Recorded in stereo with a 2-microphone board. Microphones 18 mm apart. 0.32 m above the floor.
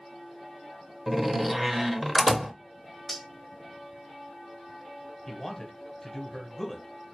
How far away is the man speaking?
About 0.9 m.